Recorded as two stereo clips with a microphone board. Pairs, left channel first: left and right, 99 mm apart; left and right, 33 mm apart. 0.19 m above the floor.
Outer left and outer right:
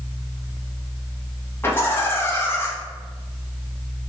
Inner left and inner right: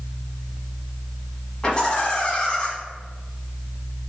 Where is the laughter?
25° left (ahead or behind), 1.2 m.